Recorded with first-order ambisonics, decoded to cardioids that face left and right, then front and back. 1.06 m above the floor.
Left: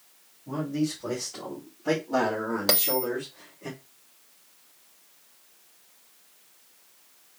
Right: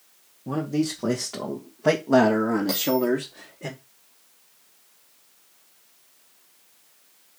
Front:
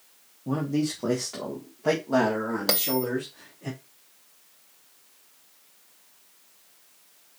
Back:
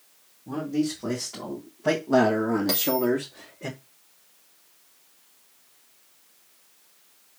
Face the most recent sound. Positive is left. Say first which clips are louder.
# right 2 dB, back 1 dB
turn(degrees=55)